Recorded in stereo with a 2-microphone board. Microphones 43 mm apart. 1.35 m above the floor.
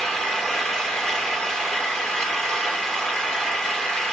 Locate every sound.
0.0 s an engine running: 15° left (ahead or behind), 1.6 m